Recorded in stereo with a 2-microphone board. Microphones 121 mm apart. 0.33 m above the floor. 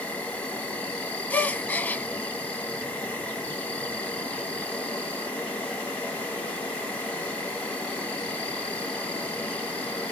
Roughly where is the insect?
Centre.